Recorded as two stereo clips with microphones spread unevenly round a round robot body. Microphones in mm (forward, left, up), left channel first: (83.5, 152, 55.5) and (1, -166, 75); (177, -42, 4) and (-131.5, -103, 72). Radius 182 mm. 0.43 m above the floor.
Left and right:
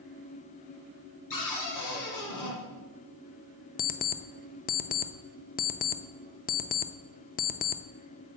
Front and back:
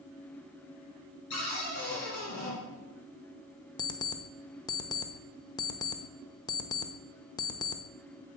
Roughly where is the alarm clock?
Ahead left.